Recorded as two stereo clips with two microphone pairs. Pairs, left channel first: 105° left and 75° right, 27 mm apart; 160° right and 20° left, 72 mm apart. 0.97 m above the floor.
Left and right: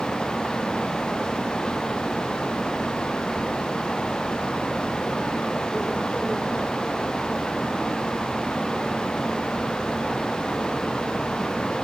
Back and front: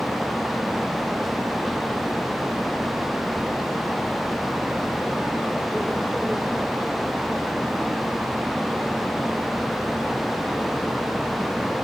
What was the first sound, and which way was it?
Only background noise.